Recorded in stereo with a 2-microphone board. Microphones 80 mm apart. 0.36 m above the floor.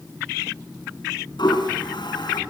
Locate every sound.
1.4 s a toilet flushing: 65° left (ahead or behind), 2 m